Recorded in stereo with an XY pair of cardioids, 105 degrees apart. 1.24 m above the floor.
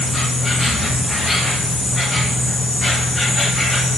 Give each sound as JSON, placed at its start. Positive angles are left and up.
{"t": 0.0, "sound": "an insect", "azimuth_deg": 25, "distance_m": 1.3}